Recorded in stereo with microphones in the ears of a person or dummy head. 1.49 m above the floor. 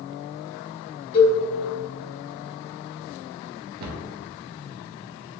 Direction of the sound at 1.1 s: 35° left (ahead or behind).